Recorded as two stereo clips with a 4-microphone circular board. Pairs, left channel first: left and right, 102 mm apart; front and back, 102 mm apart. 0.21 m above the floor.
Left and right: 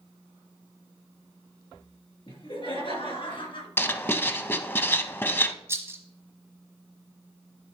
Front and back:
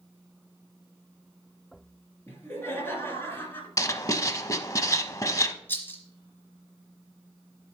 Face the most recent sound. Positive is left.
turn(degrees=-50)